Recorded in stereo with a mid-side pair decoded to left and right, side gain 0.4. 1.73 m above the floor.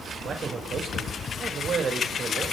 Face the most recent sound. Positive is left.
turn(degrees=-50)